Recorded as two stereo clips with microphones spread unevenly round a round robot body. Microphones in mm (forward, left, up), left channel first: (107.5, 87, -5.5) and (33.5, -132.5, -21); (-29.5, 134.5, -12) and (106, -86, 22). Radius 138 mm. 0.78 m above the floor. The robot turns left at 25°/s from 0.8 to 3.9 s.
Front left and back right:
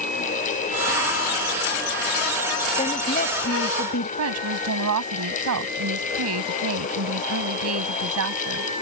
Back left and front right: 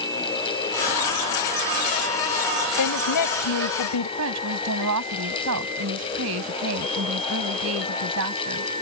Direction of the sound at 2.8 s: 145° left.